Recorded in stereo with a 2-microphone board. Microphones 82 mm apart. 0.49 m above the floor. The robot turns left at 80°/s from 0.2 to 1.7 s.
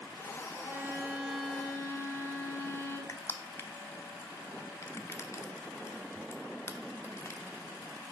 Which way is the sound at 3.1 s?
35° left (ahead or behind).